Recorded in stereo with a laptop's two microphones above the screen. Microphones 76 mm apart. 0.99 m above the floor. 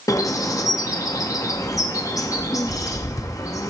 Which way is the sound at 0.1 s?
45° left (ahead or behind).